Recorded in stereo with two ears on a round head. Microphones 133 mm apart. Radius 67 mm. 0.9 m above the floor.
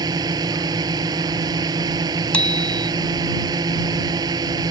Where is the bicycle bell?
10° left (ahead or behind).